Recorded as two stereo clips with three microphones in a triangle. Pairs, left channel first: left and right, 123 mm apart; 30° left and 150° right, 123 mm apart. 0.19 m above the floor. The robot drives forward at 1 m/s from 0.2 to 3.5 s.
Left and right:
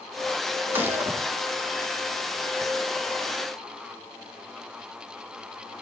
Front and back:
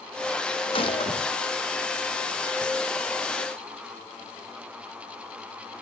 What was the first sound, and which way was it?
A gunshot, 15° right.